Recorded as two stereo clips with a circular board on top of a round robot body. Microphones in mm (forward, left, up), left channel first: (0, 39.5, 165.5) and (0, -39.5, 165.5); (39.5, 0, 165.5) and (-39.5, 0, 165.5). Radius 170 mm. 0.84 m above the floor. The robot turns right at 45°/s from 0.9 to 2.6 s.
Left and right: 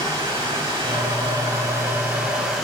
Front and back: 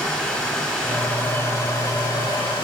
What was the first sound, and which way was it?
Running water, 80° right.